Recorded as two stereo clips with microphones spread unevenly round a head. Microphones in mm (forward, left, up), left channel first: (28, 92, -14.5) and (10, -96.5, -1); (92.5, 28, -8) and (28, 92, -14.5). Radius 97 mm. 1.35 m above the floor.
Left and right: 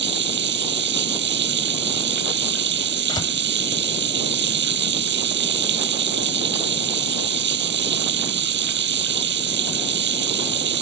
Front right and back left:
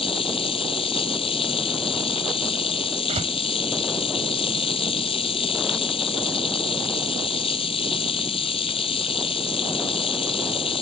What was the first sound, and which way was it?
Running water, 75° right.